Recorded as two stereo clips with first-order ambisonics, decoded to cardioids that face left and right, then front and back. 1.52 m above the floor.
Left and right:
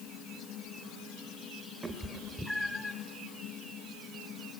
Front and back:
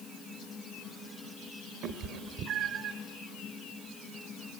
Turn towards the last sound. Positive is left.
turn(degrees=160)